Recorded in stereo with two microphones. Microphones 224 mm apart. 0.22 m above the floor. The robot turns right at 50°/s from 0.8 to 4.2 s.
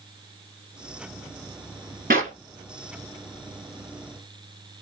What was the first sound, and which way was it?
A clap, 40° right (ahead or behind).